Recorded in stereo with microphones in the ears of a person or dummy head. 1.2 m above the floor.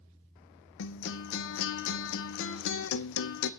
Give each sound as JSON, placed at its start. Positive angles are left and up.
{"t": 0.8, "sound": "a guitar", "side_deg": 65, "distance_m": 0.7}